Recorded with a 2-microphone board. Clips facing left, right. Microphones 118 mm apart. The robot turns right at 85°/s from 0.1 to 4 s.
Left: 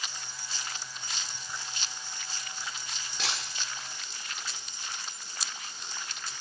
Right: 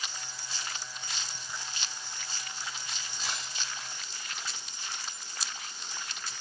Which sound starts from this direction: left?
Breaking glass, at 3.2 s.